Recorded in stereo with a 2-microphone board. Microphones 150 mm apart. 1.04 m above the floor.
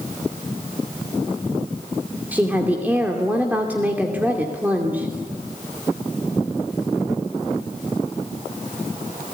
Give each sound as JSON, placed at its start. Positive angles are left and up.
{"t": 2.3, "sound": "a woman speaking", "side_deg": -10, "distance_m": 2.5}